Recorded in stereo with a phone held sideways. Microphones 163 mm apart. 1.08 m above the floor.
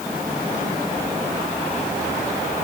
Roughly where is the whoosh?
No whoosh in this recording.